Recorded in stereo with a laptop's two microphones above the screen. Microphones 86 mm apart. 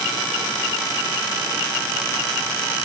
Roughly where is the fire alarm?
I don't hear a fire alarm.